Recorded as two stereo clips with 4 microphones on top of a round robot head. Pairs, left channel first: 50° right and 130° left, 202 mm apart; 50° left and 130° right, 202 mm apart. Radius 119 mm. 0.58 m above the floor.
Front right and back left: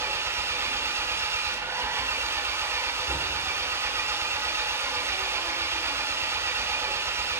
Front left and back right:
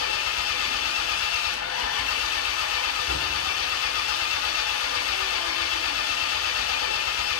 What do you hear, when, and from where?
0.0 s an engine running: 55° left, 1.0 m